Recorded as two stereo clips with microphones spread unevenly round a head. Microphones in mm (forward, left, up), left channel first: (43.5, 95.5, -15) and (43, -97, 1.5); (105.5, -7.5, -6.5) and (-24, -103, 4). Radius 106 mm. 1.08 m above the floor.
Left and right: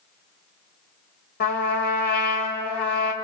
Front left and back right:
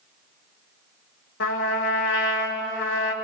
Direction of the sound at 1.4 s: 50° left.